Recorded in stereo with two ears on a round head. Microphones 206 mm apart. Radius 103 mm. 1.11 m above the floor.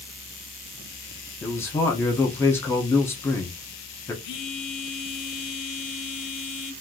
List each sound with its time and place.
1.4 s a man speaking: 10° left (ahead or behind), 1.0 m
4.2 s a phone buzzing: 55° left (ahead or behind), 0.8 m